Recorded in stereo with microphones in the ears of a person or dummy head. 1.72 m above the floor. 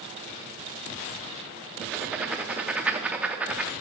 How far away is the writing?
About 0.6 m.